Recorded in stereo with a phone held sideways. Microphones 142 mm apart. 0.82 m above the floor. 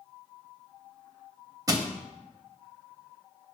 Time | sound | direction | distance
1.7 | crushing | 25° right (ahead or behind) | 0.7 m